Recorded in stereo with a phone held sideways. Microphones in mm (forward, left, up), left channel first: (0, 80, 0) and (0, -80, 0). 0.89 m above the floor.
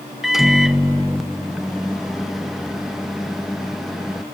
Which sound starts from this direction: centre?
A microwave, at 0.2 s.